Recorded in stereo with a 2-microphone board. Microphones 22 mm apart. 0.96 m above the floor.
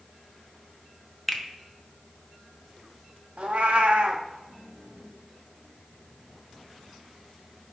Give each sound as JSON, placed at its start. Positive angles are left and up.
{"t": 1.3, "sound": "a finger snap", "side_deg": 0, "distance_m": 0.8}
{"t": 3.4, "sound": "a cat meowing", "side_deg": -65, "distance_m": 0.7}